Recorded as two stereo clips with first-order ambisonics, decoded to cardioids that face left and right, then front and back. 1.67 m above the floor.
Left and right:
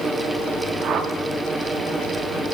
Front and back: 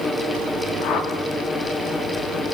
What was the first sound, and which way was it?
A whoosh, 40° right.